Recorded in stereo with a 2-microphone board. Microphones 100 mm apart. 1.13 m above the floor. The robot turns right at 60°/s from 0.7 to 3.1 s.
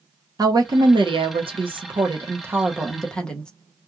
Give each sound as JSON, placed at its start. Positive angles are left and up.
{"t": 0.4, "sound": "a woman speaking", "azimuth_deg": -135, "distance_m": 0.8}